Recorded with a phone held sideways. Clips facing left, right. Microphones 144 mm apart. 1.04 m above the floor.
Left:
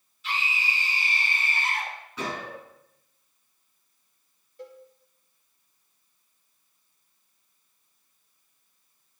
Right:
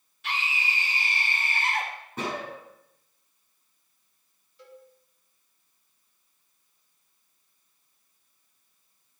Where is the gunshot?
50° right (ahead or behind), 8 m.